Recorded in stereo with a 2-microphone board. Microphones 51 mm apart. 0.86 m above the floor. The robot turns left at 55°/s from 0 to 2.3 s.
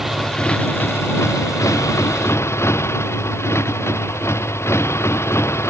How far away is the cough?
I don't hear a cough.